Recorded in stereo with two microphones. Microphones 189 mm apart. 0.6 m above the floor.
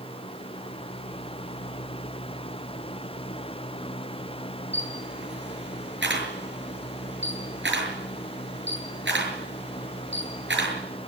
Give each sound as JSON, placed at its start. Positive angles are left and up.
{"t": 4.7, "sound": "a camera shutter", "side_deg": -80, "distance_m": 6.5}